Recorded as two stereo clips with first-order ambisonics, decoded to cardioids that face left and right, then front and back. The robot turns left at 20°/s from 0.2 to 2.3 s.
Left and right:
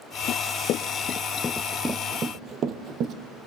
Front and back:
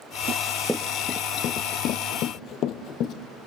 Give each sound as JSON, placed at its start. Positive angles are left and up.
{"t": 0.3, "sound": "running footsteps", "azimuth_deg": 125, "distance_m": 1.0}